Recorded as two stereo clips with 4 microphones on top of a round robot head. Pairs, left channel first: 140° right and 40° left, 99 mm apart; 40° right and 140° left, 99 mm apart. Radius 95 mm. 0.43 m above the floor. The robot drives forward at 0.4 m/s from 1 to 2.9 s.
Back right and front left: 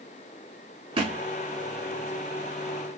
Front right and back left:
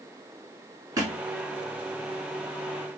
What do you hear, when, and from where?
1.0 s a thud: 80° left, 0.8 m; by 1.2 s 85° left, 0.8 m